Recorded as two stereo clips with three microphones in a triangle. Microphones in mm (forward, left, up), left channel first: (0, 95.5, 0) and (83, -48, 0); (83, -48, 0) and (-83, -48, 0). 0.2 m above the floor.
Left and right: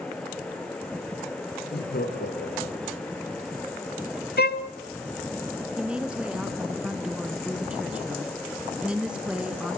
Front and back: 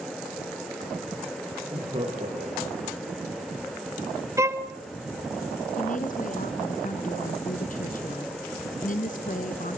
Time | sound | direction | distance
1.6 | laughter | 125° left | 6 m
4.4 | a violin | 110° left | 1.1 m
5.8 | a woman speaking | 25° left | 2 m